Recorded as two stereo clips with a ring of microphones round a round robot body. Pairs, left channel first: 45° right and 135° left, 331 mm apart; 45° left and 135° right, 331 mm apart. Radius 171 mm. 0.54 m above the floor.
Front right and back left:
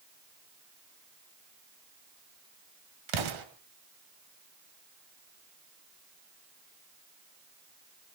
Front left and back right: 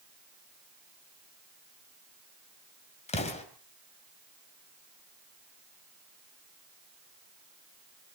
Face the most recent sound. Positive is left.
turn(degrees=115)